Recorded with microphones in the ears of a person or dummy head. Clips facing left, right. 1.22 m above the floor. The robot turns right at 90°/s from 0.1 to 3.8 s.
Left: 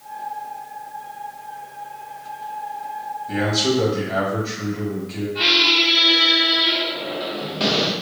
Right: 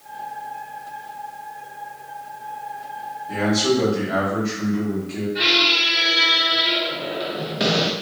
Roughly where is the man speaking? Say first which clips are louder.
Right 1 dB; behind left.